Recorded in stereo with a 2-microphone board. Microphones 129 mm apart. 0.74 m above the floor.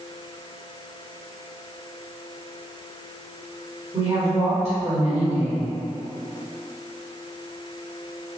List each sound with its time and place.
3.9 s a woman speaking: 30° right (ahead or behind), 2.0 m